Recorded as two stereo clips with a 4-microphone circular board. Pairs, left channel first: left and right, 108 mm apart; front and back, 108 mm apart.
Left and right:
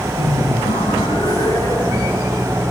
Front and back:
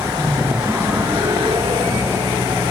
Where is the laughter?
75° left, 1.6 m; by 2.3 s 155° left, 2.5 m.